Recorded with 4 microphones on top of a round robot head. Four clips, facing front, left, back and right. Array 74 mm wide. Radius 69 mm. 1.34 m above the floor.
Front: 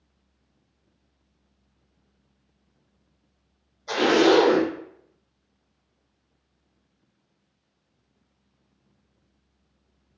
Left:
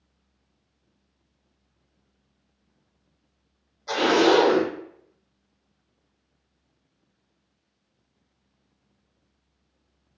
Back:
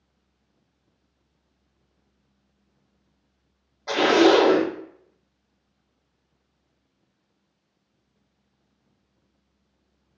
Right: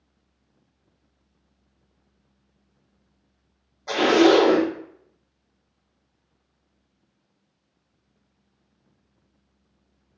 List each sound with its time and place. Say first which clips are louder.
3.9 s a zipper: right 3 dB, back 2 dB; 155° right, 1.0 m